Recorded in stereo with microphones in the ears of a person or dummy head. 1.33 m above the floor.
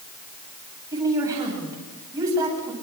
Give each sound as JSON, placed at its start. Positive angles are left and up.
{"t": 0.9, "sound": "a woman speaking", "side_deg": -20, "distance_m": 9.5}